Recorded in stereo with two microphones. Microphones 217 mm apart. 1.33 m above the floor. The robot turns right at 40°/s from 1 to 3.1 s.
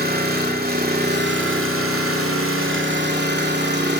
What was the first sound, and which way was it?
An engine running, 135° right.